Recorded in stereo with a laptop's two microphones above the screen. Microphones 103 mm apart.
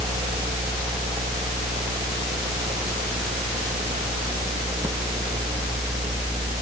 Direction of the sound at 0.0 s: 40° right (ahead or behind).